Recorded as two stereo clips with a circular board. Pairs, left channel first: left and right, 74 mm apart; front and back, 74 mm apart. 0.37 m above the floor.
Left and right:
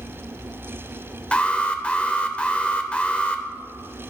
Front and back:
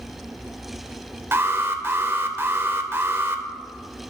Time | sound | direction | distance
1.3 | an alarm | 155° left | 0.6 m